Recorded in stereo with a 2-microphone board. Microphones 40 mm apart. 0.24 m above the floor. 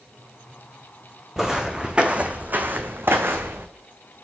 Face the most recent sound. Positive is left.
turn(degrees=-75)  # may be behind; listen again after turning